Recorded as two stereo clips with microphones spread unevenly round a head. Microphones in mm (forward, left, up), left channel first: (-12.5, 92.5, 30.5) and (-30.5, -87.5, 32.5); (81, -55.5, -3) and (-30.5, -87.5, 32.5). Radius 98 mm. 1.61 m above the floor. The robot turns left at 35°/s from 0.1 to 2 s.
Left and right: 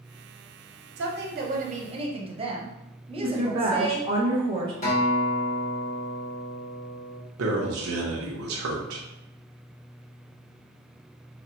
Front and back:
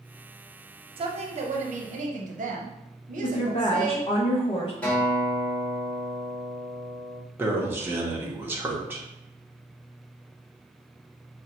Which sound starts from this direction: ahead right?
A woman speaking, at 3.2 s.